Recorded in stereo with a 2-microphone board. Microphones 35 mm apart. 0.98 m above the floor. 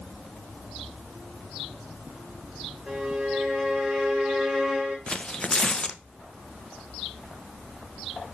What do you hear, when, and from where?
2.9 s a violin: 25° right (ahead or behind), 3 m
5.1 s tearing paper: 30° left (ahead or behind), 0.6 m